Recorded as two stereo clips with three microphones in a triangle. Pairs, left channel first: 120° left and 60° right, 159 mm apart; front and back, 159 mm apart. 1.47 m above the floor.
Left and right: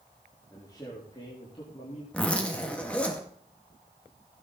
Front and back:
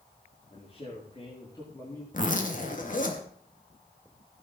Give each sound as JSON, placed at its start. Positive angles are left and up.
{"t": 0.5, "sound": "a man speaking", "azimuth_deg": 45, "distance_m": 4.0}
{"t": 2.1, "sound": "a zipper", "azimuth_deg": 35, "distance_m": 2.0}